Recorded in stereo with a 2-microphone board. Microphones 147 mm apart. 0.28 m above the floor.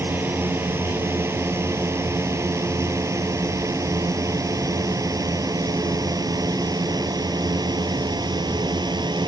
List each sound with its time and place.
0.0 s a drone: 15° right (ahead or behind); by 9.3 s 30° right (ahead or behind)